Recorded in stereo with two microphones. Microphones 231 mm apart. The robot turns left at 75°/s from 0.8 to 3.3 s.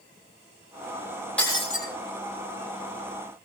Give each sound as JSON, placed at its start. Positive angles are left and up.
{"t": 1.4, "sound": "breaking glass", "azimuth_deg": 175, "distance_m": 7.0}